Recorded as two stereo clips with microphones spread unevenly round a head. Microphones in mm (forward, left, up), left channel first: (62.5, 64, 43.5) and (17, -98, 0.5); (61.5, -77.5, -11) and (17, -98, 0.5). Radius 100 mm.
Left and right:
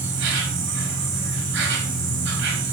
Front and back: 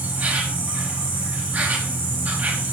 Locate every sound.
0.0 s an insect: 100° right, 6 m